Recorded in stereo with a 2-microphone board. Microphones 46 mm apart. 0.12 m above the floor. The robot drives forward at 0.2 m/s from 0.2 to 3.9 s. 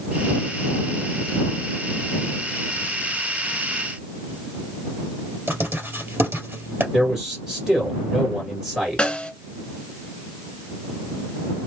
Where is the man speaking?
10° right (ahead or behind), 1.9 m.